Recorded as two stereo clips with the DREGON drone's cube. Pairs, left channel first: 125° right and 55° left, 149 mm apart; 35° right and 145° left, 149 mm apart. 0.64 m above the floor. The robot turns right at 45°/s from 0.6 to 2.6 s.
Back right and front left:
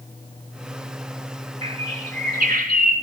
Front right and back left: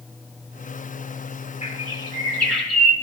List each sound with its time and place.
1.6 s a bird: 10° left, 1.8 m; by 2.9 s 55° left, 1.8 m